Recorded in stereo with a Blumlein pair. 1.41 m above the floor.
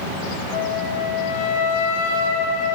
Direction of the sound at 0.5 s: 60° left.